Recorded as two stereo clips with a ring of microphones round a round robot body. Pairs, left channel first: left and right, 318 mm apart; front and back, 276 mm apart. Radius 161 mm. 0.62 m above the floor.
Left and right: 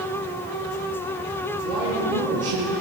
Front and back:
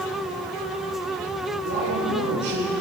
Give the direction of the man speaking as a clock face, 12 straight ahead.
4 o'clock.